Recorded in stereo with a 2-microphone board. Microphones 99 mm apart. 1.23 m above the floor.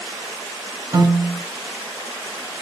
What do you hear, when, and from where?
0.9 s a piano: 35° right (ahead or behind), 2 m